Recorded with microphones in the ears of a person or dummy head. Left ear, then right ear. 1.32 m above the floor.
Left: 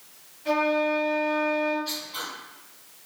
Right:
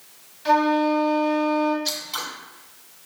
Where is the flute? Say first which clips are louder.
Right 4 dB; 50° right (ahead or behind), 1.0 m.